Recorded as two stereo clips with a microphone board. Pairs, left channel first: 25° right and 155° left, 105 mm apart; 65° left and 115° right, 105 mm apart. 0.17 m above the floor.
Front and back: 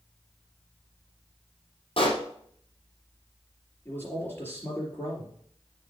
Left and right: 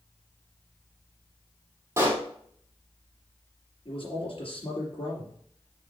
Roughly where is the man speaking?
Ahead left.